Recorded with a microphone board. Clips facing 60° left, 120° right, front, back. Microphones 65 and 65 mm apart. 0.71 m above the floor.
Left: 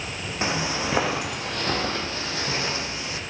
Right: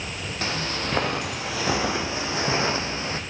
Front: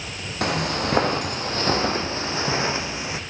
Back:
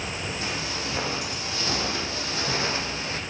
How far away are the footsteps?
About 1.4 m.